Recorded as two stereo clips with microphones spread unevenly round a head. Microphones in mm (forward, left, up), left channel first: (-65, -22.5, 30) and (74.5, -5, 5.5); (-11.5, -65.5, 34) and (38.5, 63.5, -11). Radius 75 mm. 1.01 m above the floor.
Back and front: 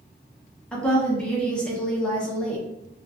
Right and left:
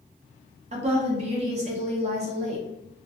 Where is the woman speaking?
100° left, 0.7 m.